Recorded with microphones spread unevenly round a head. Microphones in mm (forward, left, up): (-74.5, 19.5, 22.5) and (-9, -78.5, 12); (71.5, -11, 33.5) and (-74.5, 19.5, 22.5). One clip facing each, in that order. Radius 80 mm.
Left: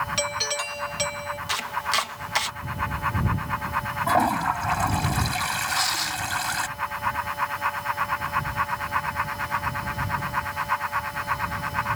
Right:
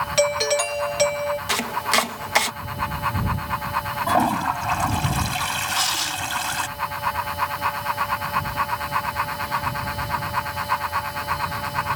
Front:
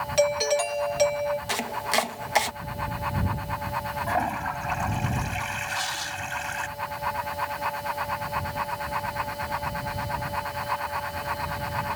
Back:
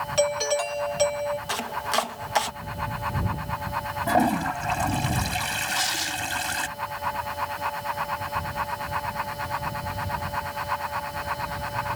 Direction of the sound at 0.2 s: 95° right.